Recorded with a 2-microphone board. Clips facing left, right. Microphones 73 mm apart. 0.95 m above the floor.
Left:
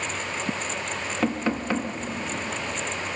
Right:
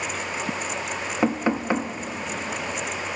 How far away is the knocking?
About 1.1 m.